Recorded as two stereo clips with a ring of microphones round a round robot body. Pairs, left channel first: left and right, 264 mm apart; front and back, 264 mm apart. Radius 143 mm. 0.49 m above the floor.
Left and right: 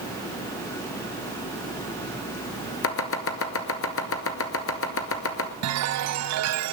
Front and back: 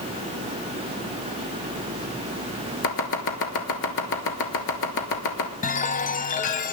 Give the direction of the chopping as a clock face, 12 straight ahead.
10 o'clock.